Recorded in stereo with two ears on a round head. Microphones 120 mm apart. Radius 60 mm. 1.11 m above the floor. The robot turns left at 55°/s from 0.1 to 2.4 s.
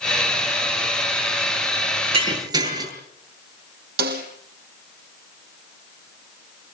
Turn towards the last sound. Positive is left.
turn(degrees=-80)